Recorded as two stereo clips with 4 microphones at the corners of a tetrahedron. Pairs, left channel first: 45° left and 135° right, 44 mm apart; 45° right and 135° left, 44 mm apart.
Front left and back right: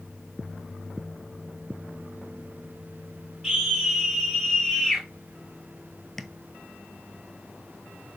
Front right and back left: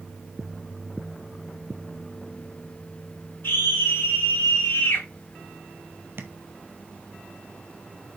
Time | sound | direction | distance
3.4 | a scream | 50° right | 3.5 m
6.2 | tapping | 125° left | 1.0 m